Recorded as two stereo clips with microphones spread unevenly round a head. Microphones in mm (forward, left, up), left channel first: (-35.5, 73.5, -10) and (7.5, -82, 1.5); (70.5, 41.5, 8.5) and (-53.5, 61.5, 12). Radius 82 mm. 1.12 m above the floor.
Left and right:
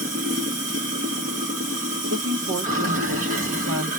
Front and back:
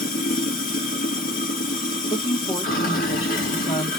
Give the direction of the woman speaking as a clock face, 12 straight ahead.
2 o'clock.